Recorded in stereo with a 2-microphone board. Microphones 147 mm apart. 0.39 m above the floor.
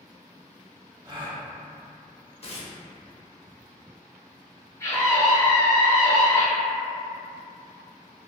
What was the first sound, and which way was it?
A gasp, 35° right (ahead or behind).